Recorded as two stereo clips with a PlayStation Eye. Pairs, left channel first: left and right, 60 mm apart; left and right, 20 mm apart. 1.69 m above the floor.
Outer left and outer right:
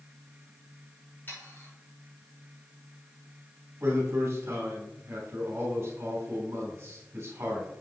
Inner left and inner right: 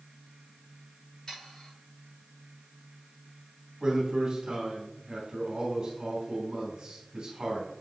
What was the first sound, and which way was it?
Sawing, 35° left (ahead or behind).